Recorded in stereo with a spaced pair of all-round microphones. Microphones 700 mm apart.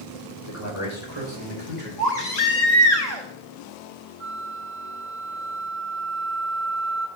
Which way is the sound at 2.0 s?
70° left (ahead or behind).